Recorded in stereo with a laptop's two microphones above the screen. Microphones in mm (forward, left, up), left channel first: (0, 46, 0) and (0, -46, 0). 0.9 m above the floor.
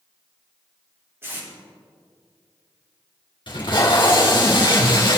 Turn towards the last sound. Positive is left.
turn(degrees=55)  # may be behind; listen again after turning